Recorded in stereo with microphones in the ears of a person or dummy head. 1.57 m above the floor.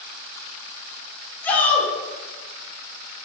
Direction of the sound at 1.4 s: 10° left (ahead or behind).